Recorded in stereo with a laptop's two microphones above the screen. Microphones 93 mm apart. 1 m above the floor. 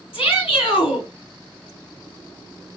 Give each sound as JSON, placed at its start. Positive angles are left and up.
{"t": 0.1, "sound": "a shout", "side_deg": 75, "distance_m": 2.5}